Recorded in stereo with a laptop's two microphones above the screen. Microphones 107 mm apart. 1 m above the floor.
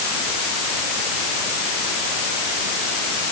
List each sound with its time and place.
Only background noise.